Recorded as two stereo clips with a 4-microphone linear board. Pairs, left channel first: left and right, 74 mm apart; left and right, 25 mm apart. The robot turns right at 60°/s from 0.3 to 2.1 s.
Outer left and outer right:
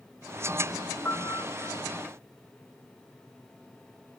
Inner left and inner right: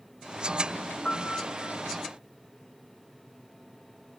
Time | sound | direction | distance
1.1 | a piano | 30° left | ?